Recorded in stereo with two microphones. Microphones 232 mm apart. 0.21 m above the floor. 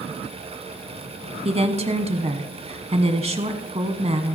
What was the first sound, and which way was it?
A woman speaking, 30° right (ahead or behind).